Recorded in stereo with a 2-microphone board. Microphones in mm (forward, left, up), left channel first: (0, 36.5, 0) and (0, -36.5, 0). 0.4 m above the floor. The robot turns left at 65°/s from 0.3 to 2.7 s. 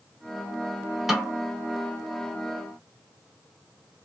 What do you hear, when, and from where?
1.1 s a snare drum: 5° right (ahead or behind), 0.8 m; by 1.4 s 10° right (ahead or behind), 0.8 m